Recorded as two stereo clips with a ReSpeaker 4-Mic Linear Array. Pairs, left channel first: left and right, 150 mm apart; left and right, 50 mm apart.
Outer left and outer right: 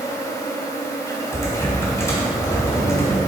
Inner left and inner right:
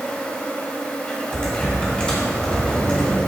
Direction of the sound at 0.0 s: 20° left (ahead or behind).